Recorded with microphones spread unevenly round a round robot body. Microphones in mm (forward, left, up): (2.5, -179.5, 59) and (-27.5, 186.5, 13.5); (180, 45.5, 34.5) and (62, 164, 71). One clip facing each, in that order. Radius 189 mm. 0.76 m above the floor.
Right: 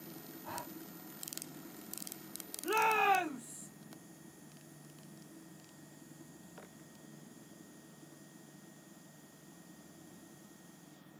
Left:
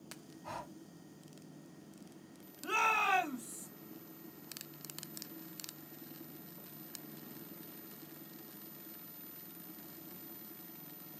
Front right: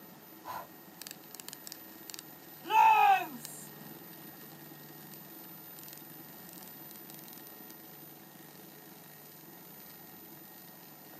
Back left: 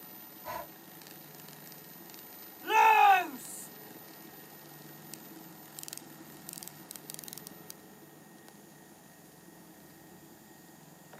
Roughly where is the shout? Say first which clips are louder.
Right 7 dB, back left 1 dB; behind left.